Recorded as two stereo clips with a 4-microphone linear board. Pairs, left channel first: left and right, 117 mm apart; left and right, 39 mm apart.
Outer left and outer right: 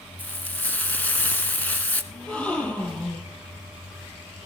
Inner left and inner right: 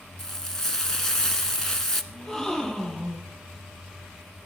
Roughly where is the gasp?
Centre.